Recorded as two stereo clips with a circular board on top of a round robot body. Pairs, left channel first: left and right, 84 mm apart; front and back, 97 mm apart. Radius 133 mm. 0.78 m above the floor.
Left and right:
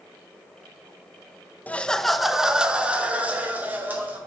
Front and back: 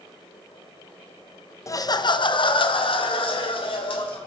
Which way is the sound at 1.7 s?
30° left.